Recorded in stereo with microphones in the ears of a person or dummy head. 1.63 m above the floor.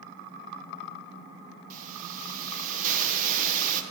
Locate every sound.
1.7 s a hiss: 50° right (ahead or behind), 1.0 m